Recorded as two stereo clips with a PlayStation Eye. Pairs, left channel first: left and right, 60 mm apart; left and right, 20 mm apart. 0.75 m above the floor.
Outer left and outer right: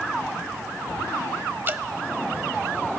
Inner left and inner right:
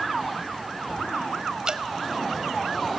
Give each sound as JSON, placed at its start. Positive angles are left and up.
{"t": 1.7, "sound": "dripping", "side_deg": -35, "distance_m": 0.7}